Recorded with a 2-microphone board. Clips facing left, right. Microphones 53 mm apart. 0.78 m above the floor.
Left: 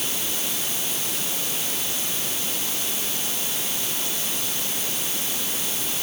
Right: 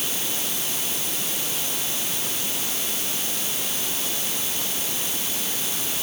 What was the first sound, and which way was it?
Only background noise.